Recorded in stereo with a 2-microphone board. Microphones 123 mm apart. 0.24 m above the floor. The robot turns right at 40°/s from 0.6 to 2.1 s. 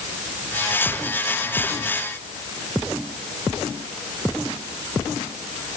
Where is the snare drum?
No snare drum in this recording.